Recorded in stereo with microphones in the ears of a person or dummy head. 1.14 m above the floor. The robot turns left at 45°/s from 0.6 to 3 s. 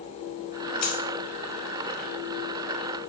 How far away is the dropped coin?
About 1.6 m.